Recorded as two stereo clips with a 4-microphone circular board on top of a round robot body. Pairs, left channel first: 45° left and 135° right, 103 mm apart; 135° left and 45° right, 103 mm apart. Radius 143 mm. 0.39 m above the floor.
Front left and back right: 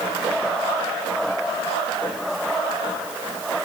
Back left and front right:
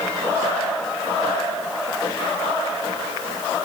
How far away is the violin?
No violin in this recording.